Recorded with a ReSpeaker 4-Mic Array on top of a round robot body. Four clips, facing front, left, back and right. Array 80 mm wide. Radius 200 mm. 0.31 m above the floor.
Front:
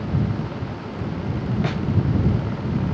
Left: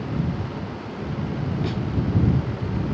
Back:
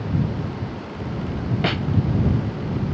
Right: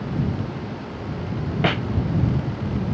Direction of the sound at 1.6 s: 105° right.